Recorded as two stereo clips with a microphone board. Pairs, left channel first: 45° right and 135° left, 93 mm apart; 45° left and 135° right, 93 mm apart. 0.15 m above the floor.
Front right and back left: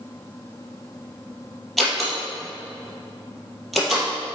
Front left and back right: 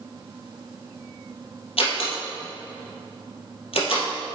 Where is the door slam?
45° left, 3 m.